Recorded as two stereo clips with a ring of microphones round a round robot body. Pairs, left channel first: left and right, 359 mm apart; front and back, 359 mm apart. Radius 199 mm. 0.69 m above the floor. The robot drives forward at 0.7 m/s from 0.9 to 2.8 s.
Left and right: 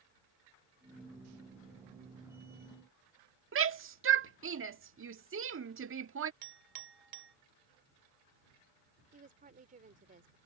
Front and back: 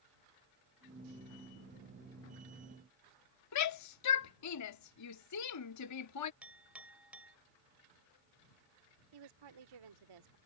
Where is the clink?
95° right.